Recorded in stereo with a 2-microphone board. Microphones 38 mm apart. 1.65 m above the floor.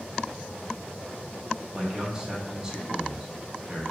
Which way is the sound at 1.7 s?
15° right (ahead or behind).